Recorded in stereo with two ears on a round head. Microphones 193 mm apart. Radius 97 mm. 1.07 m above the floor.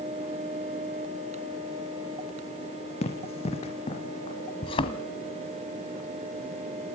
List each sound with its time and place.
3.0 s running footsteps: 30° left (ahead or behind), 3 m
4.6 s a thud: 25° left (ahead or behind), 1.7 m